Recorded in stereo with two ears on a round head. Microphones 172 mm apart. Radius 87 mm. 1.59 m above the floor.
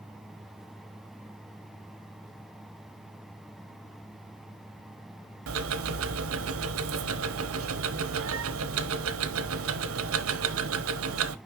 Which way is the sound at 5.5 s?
75° right (ahead or behind).